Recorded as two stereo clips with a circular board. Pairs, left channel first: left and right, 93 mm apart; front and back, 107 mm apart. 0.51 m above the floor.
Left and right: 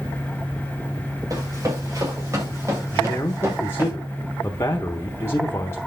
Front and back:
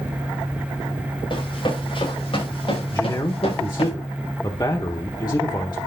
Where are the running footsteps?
35° right, 7.5 m; by 3.9 s 25° right, 6 m.